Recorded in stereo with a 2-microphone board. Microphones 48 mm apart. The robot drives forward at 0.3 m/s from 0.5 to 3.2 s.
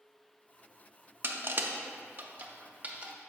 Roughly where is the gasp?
I don't hear a gasp.